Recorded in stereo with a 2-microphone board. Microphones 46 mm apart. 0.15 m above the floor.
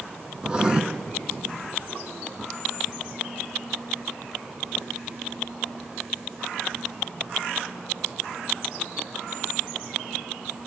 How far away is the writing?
About 1.5 m.